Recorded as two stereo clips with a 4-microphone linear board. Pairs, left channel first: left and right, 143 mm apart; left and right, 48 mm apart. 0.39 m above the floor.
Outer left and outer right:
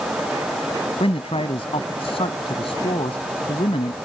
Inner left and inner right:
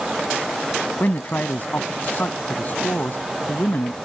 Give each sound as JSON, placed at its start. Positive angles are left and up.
{"t": 1.0, "sound": "a man speaking", "side_deg": 40}